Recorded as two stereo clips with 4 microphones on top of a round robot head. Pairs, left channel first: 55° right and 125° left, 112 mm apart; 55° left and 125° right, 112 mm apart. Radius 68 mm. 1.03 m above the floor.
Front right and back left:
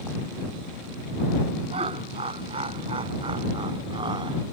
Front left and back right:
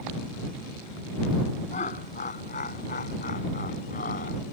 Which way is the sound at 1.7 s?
85° left.